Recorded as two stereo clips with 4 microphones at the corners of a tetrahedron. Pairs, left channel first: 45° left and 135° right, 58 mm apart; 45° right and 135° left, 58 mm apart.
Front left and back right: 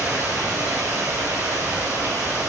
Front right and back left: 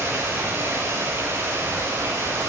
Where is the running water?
175° left, 9 m.